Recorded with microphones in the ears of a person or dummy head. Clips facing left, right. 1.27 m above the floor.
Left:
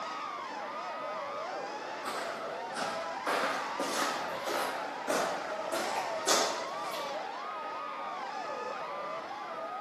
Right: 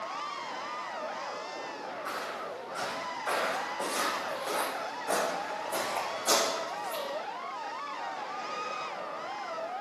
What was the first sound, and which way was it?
Footsteps, 60° left (ahead or behind).